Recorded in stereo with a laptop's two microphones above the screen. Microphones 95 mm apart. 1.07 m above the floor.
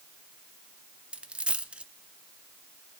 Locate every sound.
1.1 s a dropped coin: 10° right (ahead or behind), 0.7 m